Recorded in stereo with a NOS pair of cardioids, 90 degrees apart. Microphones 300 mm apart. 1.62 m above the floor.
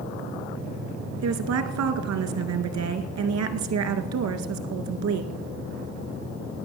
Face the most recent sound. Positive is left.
turn(degrees=-60)